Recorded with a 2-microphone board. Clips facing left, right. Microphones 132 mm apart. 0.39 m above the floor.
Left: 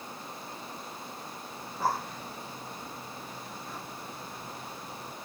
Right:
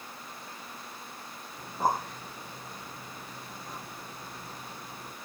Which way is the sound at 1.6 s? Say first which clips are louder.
Right 2 dB; 15° right (ahead or behind).